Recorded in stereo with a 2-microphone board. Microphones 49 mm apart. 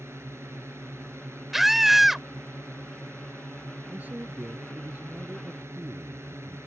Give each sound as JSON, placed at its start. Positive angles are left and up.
{"t": 0.0, "sound": "a drone", "side_deg": -65}
{"t": 1.5, "sound": "a scream", "side_deg": -5}
{"t": 3.9, "sound": "a man speaking", "side_deg": -35}